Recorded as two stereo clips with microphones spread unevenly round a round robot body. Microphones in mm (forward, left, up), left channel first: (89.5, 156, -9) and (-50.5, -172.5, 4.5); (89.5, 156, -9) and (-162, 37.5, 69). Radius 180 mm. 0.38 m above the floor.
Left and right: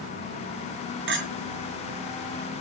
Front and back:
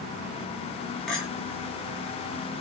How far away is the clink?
About 2.0 m.